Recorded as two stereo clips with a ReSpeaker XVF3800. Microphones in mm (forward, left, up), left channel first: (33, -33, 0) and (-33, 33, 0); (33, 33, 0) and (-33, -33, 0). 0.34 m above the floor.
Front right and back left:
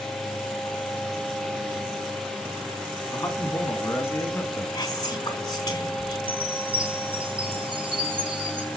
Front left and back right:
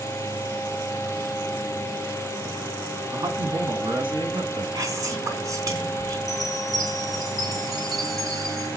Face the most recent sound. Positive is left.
turn(degrees=135)